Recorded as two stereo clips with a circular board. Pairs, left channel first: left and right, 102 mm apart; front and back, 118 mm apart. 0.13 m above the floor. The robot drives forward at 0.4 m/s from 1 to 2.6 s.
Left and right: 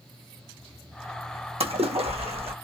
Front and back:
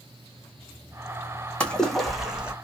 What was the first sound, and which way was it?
A splash, 80° right.